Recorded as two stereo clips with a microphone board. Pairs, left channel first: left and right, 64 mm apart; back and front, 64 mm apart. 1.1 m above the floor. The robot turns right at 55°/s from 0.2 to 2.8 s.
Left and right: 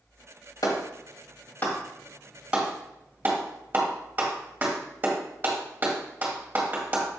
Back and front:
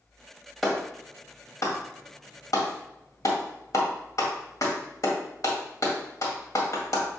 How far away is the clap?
About 1.9 m.